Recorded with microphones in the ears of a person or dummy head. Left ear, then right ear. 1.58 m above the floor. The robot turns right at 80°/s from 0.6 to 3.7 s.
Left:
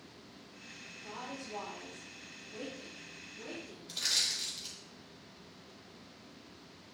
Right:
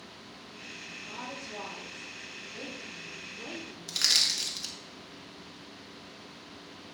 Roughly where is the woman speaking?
Ahead.